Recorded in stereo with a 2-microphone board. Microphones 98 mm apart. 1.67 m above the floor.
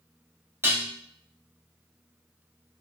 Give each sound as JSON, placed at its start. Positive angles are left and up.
{"t": 0.6, "sound": "dishes clattering", "side_deg": -25, "distance_m": 1.0}